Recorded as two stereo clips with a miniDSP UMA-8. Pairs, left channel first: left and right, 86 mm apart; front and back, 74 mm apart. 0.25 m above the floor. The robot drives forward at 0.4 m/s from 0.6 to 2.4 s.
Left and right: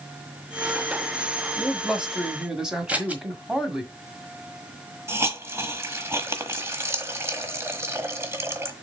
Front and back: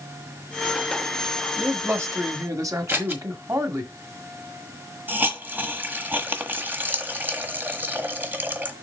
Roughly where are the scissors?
Behind right.